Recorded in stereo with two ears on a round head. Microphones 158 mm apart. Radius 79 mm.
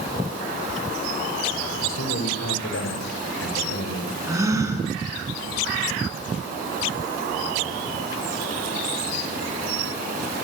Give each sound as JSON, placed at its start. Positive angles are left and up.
{"t": 1.8, "sound": "a man speaking", "side_deg": 80, "distance_m": 5.0}
{"t": 4.3, "sound": "a gasp", "side_deg": -20, "distance_m": 7.0}